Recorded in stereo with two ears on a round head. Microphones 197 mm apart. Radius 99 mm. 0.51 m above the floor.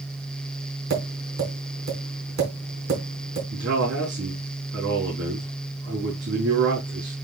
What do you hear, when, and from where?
0.9 s tapping: 45° right (ahead or behind), 4.5 m
3.5 s a man speaking: 55° right (ahead or behind), 4.5 m